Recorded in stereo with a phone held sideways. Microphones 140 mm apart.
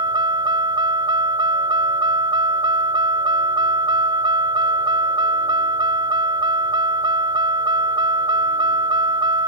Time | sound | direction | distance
0.0 | a vehicle | 35° right (ahead or behind) | ?